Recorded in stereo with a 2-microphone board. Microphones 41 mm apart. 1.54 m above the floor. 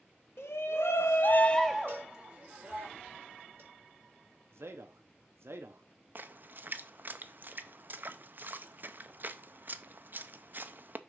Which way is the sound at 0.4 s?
75° left (ahead or behind).